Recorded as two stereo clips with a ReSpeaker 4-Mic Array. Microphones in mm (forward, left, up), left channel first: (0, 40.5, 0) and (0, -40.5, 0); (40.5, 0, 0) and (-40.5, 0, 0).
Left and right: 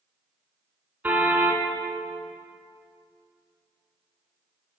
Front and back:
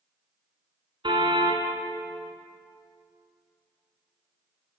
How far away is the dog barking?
No dog barking in this recording.